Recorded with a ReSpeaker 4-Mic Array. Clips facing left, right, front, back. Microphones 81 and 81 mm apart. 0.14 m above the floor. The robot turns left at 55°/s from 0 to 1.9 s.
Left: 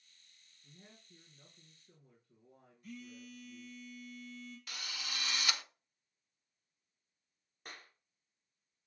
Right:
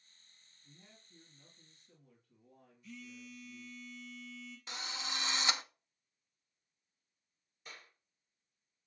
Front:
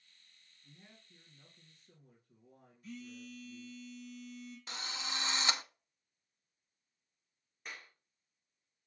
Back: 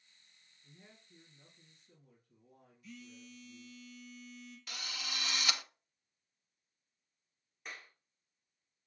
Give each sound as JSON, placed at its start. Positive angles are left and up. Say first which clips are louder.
{"t": 0.6, "sound": "a man speaking", "louder": "left 3 dB, even", "azimuth_deg": 105, "distance_m": 2.5}
{"t": 2.8, "sound": "a phone buzzing", "louder": "left 1 dB, front 5 dB", "azimuth_deg": 50, "distance_m": 3.0}
{"t": 4.7, "sound": "a drill", "louder": "right 5 dB, front 2 dB", "azimuth_deg": -40, "distance_m": 0.5}
{"t": 7.7, "sound": "a clap", "louder": "left 2 dB, even", "azimuth_deg": 90, "distance_m": 1.8}